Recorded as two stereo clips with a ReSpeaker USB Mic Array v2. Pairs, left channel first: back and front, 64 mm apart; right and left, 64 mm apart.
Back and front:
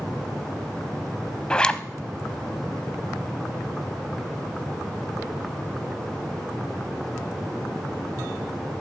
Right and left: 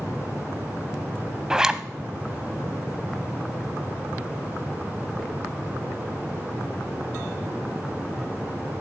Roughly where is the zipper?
Behind left.